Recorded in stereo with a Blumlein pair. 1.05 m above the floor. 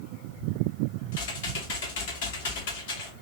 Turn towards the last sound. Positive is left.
turn(degrees=55)